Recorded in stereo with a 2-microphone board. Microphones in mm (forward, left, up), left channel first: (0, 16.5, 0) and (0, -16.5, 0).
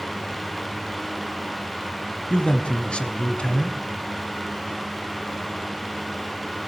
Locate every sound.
2.3 s a man speaking: 35° left (ahead or behind), 1.2 m